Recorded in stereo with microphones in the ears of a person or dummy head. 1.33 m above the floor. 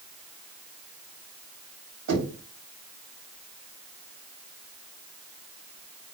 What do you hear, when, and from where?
2.1 s knocking: 80° right, 1.9 m